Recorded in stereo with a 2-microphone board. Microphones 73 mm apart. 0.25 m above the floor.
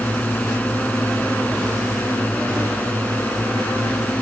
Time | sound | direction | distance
0.0 | a drone | 20° left (ahead or behind) | ?